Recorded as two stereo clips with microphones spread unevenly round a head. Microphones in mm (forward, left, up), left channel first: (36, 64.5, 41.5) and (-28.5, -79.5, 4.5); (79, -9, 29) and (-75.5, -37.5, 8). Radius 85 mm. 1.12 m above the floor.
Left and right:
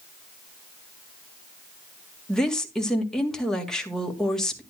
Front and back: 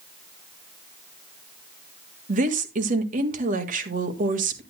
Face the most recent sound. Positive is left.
turn(degrees=155)